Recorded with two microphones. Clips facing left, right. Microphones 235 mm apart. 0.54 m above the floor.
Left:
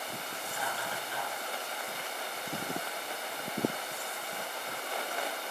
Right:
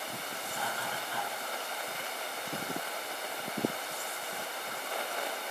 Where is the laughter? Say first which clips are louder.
Even; 50° right (ahead or behind), 4.5 m.